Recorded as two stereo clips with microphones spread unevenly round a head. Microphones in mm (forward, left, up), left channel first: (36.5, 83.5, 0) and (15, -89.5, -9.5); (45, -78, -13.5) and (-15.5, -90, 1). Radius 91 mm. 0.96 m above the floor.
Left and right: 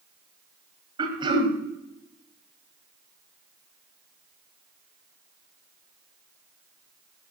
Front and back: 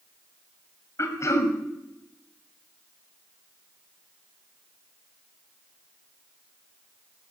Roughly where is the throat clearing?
Ahead right.